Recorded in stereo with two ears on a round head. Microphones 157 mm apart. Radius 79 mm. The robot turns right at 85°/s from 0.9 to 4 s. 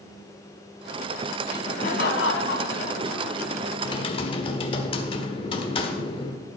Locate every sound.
1.4 s laughter: 15° left, 3 m; by 3.7 s 150° right, 3 m
3.8 s typing on a keyboard: 20° left (ahead or behind), 1.4 m; by 6.4 s 30° left (ahead or behind), 1.4 m